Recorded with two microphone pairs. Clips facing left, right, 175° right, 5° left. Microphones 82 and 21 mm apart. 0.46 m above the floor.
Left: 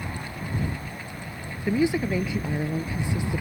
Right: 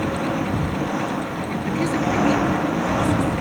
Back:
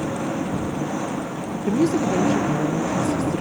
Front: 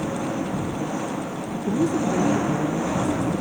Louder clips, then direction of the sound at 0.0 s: Right 13 dB, back 1 dB; 85° right.